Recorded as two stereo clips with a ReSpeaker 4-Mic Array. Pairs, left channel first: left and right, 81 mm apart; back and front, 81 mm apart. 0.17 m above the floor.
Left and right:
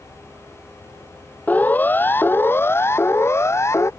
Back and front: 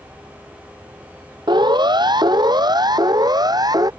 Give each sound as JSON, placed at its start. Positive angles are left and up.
{"t": 1.5, "sound": "a siren", "azimuth_deg": 20}